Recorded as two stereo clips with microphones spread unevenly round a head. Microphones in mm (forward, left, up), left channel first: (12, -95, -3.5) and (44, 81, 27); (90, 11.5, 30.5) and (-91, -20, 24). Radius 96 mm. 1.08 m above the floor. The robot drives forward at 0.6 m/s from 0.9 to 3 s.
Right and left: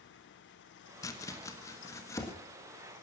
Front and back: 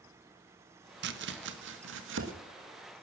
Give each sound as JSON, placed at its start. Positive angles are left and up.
{"t": 1.0, "sound": "chopping", "azimuth_deg": -170, "distance_m": 1.1}